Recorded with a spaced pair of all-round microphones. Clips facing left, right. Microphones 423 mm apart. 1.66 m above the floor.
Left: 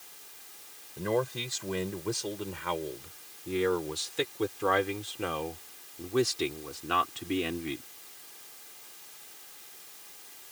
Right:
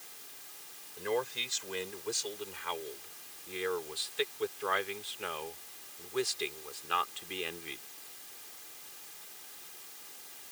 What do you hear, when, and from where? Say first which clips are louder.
1.0 s a man speaking: left 4 dB; 60° left (ahead or behind); by 7.8 s 75° left (ahead or behind)